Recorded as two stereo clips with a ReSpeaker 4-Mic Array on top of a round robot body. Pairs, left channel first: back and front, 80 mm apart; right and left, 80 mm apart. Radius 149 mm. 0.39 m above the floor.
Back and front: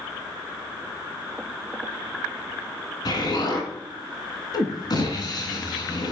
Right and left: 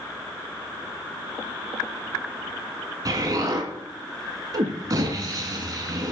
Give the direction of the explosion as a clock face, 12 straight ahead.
7 o'clock.